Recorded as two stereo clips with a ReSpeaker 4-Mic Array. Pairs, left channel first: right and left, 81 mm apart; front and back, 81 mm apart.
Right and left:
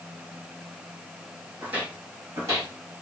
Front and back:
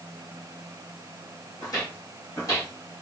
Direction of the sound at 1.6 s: 20° left.